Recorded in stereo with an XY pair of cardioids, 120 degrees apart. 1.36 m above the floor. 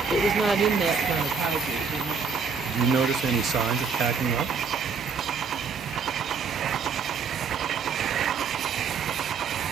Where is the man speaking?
55° right, 0.9 m.